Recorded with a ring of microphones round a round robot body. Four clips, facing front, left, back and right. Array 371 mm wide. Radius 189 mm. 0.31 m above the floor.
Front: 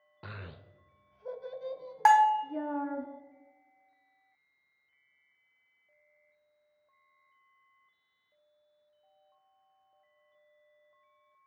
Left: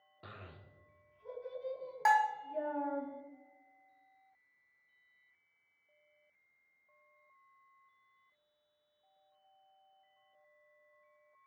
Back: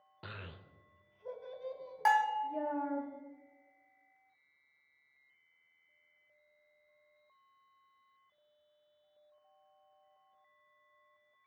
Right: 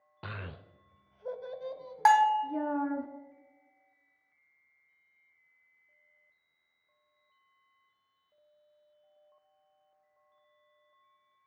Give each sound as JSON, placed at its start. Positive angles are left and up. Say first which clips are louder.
{"t": 0.2, "sound": "a child speaking", "louder": "right 9 dB, front 2 dB", "azimuth_deg": -85, "distance_m": 0.7}
{"t": 2.0, "sound": "a bell", "louder": "right 7 dB, front 8 dB", "azimuth_deg": -40, "distance_m": 1.2}